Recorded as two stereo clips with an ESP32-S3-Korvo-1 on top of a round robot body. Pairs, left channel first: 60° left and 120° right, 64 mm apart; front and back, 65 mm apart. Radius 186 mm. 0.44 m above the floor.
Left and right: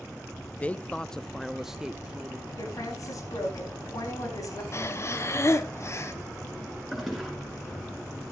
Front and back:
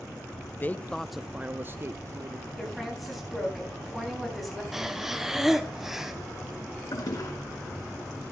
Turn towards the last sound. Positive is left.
turn(degrees=-30)